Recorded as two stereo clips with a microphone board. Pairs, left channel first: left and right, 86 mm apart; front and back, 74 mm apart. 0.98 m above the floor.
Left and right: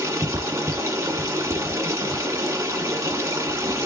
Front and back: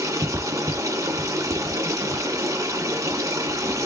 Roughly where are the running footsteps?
I don't hear running footsteps.